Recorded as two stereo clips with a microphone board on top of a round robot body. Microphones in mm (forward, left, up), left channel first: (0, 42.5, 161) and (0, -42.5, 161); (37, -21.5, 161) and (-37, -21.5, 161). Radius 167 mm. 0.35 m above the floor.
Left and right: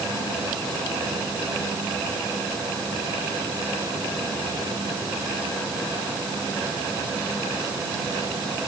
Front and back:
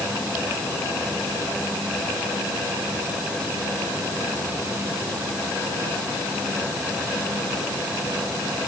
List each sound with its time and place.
Only background noise.